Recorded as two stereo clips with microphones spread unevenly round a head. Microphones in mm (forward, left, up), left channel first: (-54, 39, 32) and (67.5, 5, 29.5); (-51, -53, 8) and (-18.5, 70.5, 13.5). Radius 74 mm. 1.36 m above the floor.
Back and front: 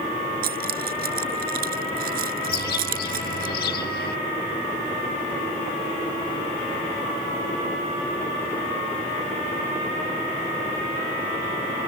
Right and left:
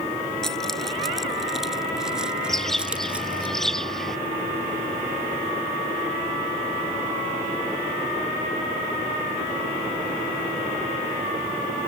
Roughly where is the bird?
Behind.